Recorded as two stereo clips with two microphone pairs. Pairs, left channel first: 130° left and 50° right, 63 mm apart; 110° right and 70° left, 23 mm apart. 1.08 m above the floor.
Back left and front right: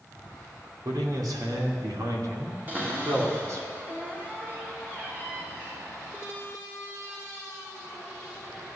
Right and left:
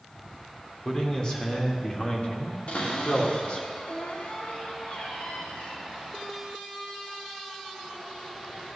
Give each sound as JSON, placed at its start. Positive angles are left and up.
{"t": 0.8, "sound": "a man speaking", "azimuth_deg": -50, "distance_m": 2.5}
{"t": 2.7, "sound": "a cupboard door", "azimuth_deg": -110, "distance_m": 2.5}